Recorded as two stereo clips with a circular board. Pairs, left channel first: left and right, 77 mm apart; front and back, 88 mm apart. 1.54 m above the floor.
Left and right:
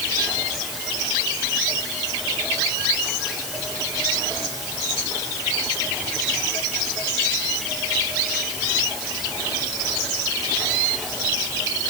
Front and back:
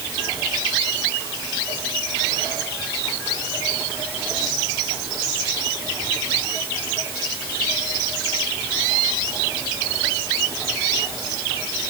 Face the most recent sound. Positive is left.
No sound to turn to.